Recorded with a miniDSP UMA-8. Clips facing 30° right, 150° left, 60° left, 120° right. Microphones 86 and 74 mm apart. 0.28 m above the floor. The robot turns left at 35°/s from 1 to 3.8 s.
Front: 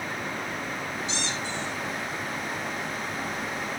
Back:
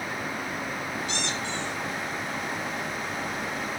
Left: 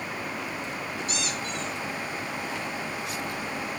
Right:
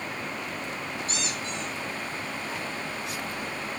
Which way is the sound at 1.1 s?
175° right.